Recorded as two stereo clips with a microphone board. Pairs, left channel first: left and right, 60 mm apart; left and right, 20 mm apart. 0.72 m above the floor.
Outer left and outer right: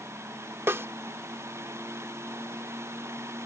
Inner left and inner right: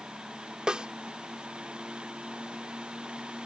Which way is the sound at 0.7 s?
45° right (ahead or behind).